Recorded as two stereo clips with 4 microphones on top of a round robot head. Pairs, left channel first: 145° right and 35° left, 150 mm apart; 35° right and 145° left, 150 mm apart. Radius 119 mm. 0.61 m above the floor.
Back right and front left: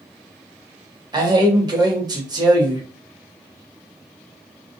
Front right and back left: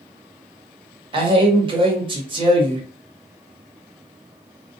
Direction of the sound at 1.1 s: 95° left.